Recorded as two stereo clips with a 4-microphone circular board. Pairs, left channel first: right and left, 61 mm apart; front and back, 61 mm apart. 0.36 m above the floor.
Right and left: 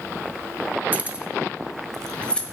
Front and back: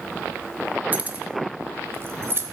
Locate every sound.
0.9 s keys jangling: 135° left, 0.8 m; by 2.4 s 155° right, 1.0 m